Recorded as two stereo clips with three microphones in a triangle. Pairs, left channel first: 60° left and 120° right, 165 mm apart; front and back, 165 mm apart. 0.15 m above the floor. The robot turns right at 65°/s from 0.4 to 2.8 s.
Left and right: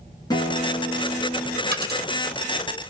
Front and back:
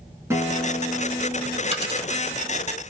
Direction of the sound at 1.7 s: 135° right.